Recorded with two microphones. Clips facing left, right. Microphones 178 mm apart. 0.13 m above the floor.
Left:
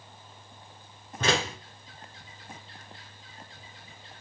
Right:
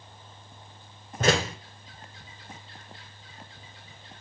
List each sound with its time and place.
1.2 s a door slam: 45° right (ahead or behind), 0.9 m